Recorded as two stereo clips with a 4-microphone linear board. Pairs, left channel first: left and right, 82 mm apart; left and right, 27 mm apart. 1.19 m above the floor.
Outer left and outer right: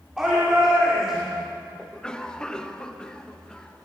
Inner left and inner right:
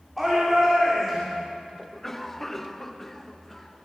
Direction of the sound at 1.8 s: 10° left (ahead or behind).